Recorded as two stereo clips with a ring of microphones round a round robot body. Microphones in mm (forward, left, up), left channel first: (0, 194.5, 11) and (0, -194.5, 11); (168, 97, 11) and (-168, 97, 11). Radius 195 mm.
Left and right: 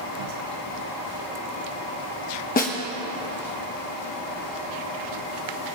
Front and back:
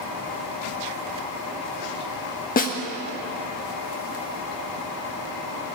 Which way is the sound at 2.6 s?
40° left.